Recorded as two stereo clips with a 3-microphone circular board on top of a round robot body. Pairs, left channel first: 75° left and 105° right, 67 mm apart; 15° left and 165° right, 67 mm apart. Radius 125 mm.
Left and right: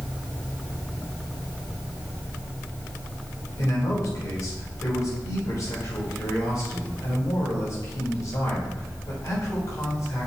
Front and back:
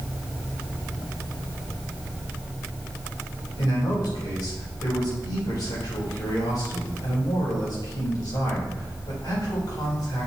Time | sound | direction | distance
3.6 | a man speaking | 35° left | 3.5 m